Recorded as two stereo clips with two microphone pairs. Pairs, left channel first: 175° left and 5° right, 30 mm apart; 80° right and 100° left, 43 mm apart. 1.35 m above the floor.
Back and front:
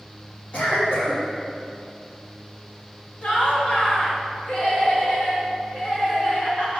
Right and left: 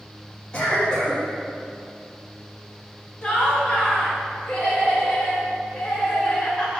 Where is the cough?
150° right, 1.8 m.